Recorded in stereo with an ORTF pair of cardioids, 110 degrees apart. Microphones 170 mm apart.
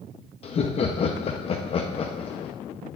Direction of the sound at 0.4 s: 35° left.